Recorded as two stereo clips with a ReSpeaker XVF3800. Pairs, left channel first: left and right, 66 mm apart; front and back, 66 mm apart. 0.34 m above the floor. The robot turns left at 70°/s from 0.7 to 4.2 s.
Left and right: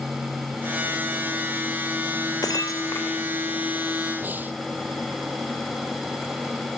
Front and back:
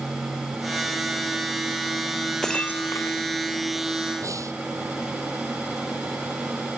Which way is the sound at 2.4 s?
80° left.